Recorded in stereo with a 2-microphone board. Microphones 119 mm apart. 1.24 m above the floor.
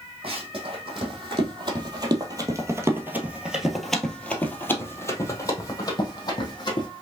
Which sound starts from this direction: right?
Running footsteps, at 0.2 s.